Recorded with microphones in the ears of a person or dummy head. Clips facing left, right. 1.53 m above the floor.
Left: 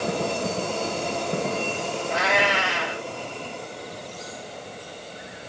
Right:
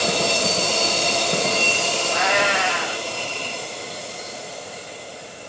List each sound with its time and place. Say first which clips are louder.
2.1 s a cat meowing: right 1 dB; 5° left (ahead or behind), 1.8 m